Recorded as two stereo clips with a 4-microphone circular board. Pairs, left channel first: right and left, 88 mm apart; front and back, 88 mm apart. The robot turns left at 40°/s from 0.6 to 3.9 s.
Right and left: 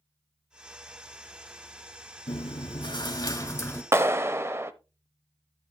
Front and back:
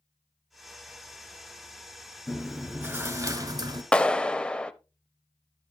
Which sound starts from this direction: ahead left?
A clap, at 3.9 s.